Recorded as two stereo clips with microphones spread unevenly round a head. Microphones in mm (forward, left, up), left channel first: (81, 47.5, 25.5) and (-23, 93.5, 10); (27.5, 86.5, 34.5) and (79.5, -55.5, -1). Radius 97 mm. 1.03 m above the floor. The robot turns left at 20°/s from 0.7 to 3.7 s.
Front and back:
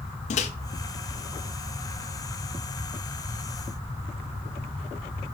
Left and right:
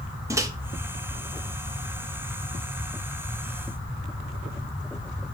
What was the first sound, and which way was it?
A microwave, 5° right.